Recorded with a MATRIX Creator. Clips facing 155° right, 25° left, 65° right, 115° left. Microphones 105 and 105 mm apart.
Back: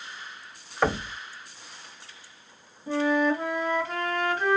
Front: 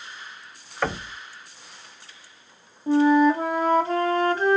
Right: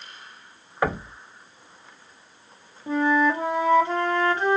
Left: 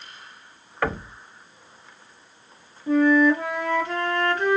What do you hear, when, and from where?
0.8 s knocking: 100° right, 0.6 m
2.9 s a flute: 20° right, 1.3 m